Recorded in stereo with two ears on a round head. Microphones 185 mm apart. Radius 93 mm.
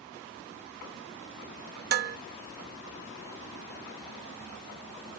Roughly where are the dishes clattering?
Right.